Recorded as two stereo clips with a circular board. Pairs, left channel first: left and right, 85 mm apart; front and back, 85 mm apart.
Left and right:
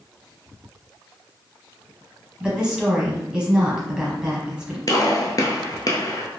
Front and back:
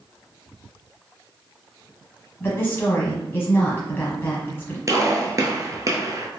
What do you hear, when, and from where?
2.4 s a woman speaking: 20° right, 1.1 m
4.9 s a gunshot: 130° left, 0.6 m